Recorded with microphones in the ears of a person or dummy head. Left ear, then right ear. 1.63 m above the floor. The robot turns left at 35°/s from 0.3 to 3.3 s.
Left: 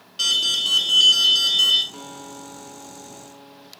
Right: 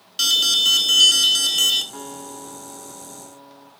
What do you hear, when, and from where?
0.2 s an alarm: 25° right, 2 m; by 1.8 s 80° right, 2 m
1.9 s a guitar: 130° right, 4 m; by 3.7 s 175° right, 4 m